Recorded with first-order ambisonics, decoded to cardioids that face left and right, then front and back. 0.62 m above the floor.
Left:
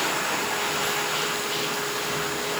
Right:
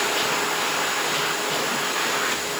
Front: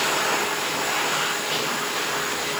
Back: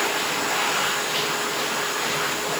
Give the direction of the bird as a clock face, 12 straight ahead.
No bird in this recording.